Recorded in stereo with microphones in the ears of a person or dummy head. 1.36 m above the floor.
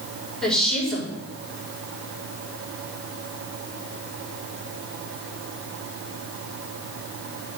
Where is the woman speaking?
10° left (ahead or behind), 4 m.